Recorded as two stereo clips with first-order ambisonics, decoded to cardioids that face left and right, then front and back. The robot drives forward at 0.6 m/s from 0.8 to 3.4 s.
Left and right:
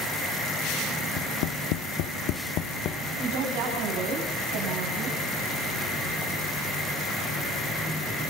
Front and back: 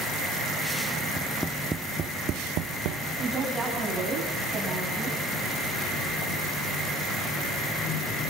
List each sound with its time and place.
1.2 s tapping: 75° left, 0.7 m; by 3.0 s 145° left, 1.1 m
3.2 s a woman speaking: 100° right, 7 m